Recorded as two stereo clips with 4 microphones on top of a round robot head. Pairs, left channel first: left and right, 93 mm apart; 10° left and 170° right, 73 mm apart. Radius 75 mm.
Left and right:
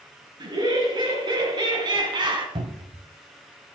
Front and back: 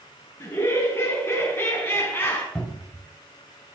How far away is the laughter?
About 5.5 m.